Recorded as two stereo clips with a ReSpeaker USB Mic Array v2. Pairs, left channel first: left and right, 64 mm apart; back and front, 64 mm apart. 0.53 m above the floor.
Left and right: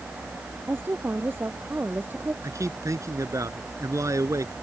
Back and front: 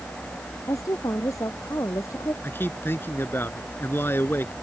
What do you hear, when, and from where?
0.7 s a woman speaking: 145° right
2.4 s a man speaking: 125° right